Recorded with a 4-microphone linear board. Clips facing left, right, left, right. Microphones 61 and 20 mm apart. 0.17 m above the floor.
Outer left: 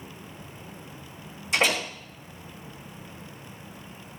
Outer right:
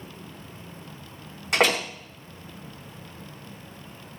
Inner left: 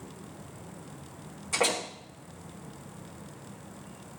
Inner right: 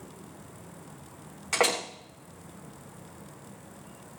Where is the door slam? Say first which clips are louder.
Outer right 3 dB, inner right 2 dB; 65° right (ahead or behind), 7.5 m.